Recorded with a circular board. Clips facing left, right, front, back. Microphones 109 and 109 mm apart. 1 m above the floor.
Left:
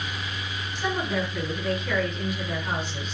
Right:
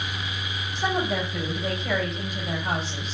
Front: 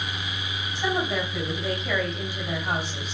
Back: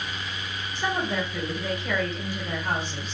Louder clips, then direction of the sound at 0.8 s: Right 2 dB, front 1 dB; 140° right.